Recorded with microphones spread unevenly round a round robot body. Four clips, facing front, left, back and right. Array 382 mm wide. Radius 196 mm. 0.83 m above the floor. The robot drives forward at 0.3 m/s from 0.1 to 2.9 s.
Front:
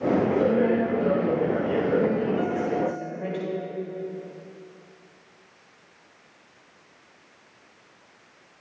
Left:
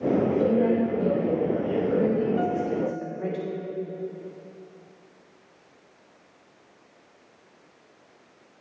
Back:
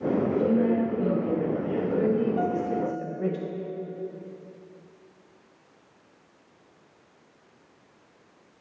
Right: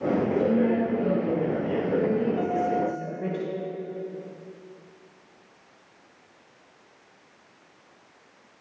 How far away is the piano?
About 1.1 m.